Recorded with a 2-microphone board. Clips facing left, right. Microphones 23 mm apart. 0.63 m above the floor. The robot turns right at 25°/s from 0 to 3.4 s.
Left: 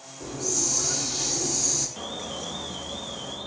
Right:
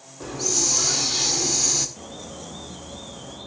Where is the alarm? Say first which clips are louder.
Left 4 dB; 110° left, 1.8 m; by 3.5 s 145° left, 1.8 m.